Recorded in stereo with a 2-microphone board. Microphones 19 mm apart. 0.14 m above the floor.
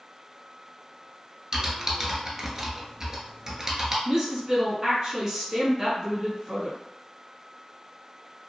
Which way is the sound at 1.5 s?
30° right (ahead or behind).